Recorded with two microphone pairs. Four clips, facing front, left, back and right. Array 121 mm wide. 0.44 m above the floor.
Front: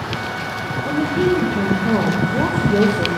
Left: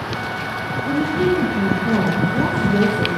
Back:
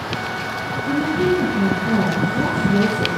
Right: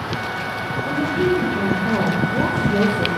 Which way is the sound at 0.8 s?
10° right.